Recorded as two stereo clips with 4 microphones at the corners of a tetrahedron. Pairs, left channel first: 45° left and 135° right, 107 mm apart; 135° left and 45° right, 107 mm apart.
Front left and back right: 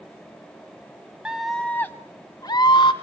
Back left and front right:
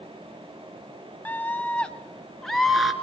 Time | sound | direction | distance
1.2 | a scream | 160° left | 1.0 m